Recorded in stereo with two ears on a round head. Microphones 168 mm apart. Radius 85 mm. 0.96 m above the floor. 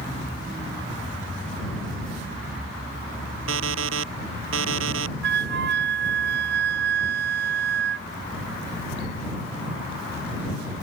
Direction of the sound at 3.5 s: 75° right (ahead or behind).